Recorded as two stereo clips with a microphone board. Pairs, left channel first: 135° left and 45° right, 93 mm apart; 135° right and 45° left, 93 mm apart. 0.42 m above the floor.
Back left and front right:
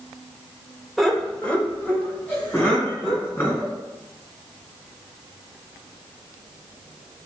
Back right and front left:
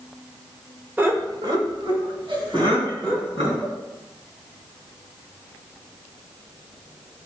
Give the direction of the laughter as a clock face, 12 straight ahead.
11 o'clock.